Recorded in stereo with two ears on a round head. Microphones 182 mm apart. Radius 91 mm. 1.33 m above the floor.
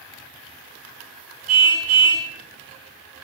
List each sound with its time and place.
1.5 s a car horn: 85° right, 6.5 m